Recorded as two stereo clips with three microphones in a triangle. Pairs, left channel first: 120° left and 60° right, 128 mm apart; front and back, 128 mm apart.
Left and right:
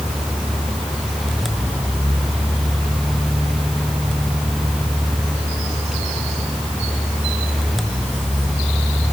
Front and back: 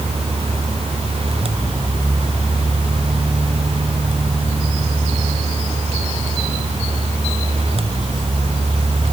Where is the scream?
No scream in this recording.